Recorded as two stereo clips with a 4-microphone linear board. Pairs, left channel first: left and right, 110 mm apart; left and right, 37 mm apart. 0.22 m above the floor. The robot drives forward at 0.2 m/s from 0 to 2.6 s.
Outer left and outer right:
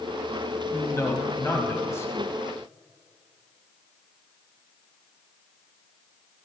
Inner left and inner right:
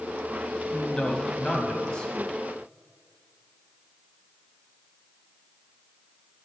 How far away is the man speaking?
About 1.0 m.